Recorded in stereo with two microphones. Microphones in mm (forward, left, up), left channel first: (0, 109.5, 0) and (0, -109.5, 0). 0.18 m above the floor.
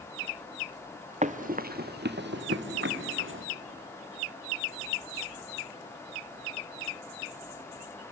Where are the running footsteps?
35° right (ahead or behind), 1.4 m; by 3.4 s 65° right (ahead or behind), 2.5 m.